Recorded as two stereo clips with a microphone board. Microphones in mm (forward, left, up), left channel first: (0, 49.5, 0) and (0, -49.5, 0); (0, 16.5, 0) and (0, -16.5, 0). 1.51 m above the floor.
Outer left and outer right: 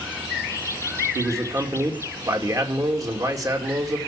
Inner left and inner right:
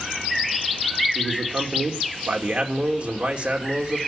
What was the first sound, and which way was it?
A man speaking, 35° right (ahead or behind).